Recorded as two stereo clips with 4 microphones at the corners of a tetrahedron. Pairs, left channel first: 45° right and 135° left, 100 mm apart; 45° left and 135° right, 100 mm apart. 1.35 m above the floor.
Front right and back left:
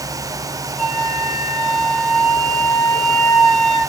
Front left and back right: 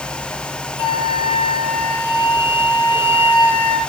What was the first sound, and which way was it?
A flute, 45° left.